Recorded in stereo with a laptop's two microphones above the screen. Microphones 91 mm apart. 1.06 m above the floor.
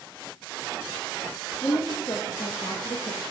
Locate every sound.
1.6 s a woman speaking: 35° left (ahead or behind), 1.5 m; by 3.2 s 60° left (ahead or behind), 1.1 m